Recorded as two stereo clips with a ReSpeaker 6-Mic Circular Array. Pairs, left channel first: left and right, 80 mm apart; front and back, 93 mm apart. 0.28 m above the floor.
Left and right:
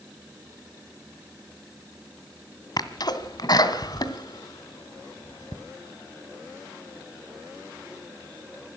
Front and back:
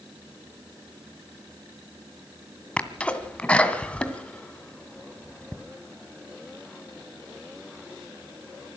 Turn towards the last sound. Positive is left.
turn(degrees=75)